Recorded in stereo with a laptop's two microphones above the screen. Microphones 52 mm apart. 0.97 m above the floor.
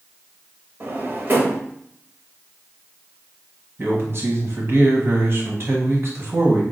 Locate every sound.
0.8 s a drawer: 45° right (ahead or behind), 0.9 m
3.8 s a man speaking: 45° right (ahead or behind), 1.1 m